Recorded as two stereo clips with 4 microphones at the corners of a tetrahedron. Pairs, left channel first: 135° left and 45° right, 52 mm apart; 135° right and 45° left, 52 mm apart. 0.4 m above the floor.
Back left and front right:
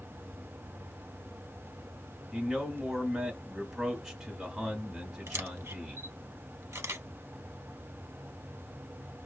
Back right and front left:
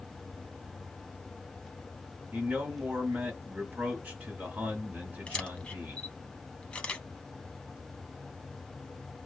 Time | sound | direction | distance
2.3 | a man speaking | 25° left | 1.0 m
5.3 | a camera shutter | 70° right | 0.5 m